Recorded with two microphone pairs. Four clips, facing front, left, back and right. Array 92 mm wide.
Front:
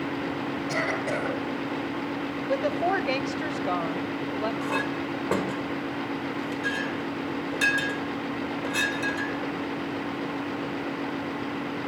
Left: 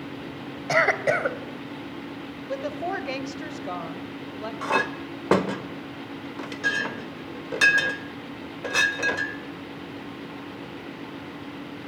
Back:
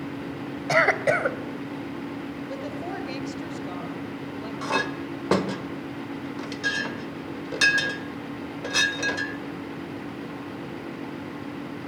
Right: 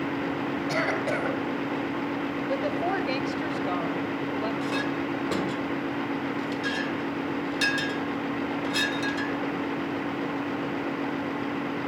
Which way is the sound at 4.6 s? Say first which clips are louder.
Left 2 dB, back 1 dB; 105° left.